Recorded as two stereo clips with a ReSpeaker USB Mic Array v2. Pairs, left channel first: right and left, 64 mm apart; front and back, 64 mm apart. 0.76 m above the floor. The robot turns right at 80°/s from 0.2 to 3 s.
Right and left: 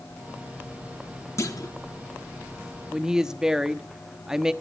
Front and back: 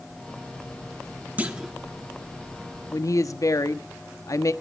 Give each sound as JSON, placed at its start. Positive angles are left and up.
{"t": 1.4, "sound": "a clunk", "azimuth_deg": -120, "distance_m": 1.4}
{"t": 2.9, "sound": "a woman speaking", "azimuth_deg": 5, "distance_m": 0.9}